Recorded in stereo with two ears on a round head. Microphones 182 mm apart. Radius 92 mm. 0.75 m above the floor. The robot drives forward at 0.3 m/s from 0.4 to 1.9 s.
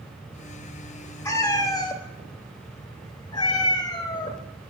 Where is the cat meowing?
15° left (ahead or behind), 0.9 m; by 4.4 s 20° left (ahead or behind), 0.7 m.